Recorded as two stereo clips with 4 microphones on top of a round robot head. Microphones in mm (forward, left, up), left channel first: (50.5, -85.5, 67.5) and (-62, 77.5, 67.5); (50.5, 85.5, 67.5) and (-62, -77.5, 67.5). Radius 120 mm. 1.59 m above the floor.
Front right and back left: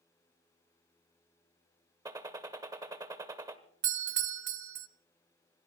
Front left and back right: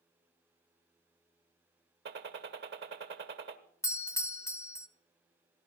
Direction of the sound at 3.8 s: 130° left.